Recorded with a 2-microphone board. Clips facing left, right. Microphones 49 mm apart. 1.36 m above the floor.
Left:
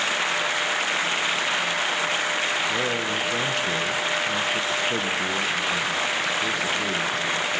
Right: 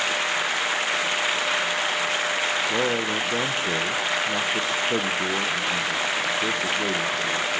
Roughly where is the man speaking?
Right.